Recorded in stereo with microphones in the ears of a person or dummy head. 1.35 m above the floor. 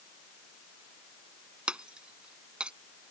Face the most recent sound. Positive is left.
turn(degrees=-10)  # may be behind; listen again after turning